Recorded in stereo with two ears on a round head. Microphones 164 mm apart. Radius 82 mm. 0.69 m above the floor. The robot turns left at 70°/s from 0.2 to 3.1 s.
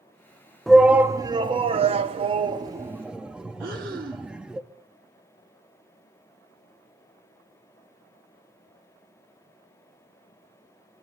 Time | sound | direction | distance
0.7 | a shout | centre (ahead or behind) | 0.7 m
3.6 | breathing | 50° right (ahead or behind) | 1.5 m